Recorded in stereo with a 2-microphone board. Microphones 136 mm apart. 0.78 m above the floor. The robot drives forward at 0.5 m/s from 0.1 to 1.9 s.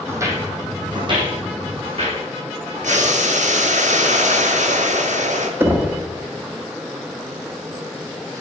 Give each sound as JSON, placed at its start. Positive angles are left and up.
{"t": 0.1, "sound": "footsteps", "side_deg": -20, "distance_m": 2.0}
{"t": 2.8, "sound": "boiling", "side_deg": -70, "distance_m": 1.1}
{"t": 5.6, "sound": "knocking", "side_deg": -15, "distance_m": 1.0}